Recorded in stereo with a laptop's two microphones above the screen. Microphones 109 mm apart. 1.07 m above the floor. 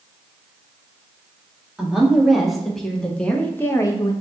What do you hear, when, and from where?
1.8 s a woman speaking: 5° right (ahead or behind), 1.6 m; by 4.1 s 35° left (ahead or behind), 0.7 m